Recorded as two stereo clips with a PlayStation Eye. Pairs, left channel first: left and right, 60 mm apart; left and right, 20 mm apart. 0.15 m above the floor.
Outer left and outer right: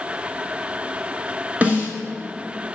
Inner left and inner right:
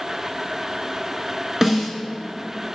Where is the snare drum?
25° right (ahead or behind), 1.5 m.